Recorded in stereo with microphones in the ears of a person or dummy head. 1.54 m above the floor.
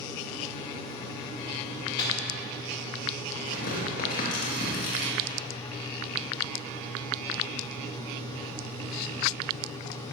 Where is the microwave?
25° left (ahead or behind), 2.5 m.